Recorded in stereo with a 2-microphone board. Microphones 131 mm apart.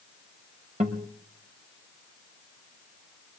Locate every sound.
0.8 s a guitar: 65° right (ahead or behind), 1.6 m